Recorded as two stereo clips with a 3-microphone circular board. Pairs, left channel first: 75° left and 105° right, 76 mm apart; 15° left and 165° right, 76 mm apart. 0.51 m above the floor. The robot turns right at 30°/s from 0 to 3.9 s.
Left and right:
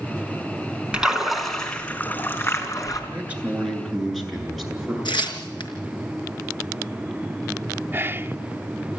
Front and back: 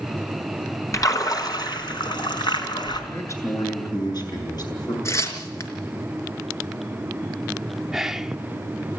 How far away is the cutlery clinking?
I don't hear cutlery clinking.